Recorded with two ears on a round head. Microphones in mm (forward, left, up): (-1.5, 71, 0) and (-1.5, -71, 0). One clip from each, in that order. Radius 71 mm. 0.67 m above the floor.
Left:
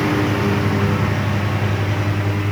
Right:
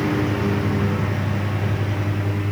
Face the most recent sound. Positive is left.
turn(degrees=20)  # may be behind; listen again after turning